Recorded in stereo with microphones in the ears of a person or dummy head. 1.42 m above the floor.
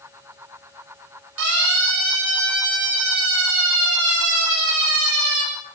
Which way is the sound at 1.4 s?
80° right.